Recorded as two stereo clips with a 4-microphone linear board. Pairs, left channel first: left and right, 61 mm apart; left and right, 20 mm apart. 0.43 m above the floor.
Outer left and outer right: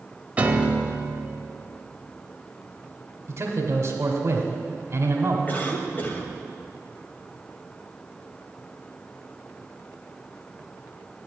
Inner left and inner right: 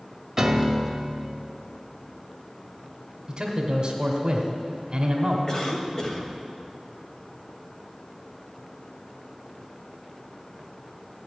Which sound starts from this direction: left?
A cough, at 5.5 s.